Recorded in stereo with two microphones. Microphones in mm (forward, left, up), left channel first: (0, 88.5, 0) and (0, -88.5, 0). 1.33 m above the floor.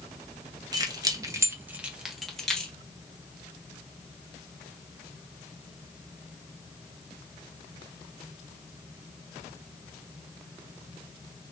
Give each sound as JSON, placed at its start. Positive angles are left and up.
{"t": 0.7, "sound": "keys jangling", "side_deg": -20, "distance_m": 0.7}